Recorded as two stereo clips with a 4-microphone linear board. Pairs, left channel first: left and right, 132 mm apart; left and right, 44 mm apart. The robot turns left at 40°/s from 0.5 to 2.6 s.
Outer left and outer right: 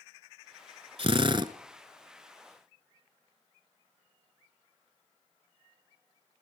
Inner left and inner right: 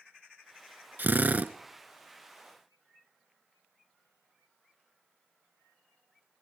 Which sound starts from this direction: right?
A drill, at 1.0 s.